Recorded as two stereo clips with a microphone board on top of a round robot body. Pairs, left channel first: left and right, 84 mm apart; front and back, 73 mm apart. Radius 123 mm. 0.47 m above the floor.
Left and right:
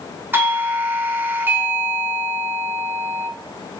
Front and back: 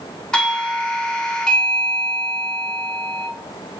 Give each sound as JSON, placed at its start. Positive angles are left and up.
{"t": 0.3, "sound": "a doorbell", "azimuth_deg": -65, "distance_m": 1.1}